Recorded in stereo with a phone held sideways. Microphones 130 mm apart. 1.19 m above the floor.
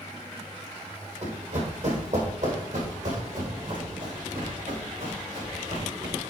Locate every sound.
1.2 s running footsteps: 55° right (ahead or behind), 2.0 m; by 6.2 s 70° right (ahead or behind), 4.5 m